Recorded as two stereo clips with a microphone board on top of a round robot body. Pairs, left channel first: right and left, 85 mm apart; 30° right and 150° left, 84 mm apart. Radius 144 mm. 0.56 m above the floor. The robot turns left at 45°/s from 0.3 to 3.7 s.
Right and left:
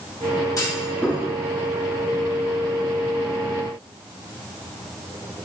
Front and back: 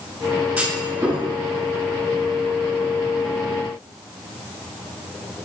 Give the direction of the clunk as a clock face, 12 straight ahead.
4 o'clock.